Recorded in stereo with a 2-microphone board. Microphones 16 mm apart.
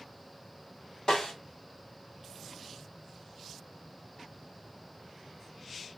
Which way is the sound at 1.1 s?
50° left (ahead or behind).